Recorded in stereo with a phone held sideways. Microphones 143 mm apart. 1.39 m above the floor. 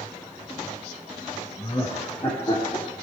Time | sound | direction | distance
1.6 | laughter | 30° left (ahead or behind) | 1.1 m